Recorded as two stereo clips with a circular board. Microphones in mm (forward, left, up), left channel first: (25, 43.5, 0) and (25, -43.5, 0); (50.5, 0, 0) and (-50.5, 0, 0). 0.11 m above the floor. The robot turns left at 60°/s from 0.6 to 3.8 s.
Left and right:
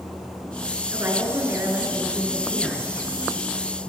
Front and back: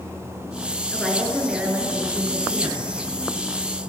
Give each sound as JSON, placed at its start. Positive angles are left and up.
{"t": 0.9, "sound": "a woman speaking", "azimuth_deg": -70, "distance_m": 1.9}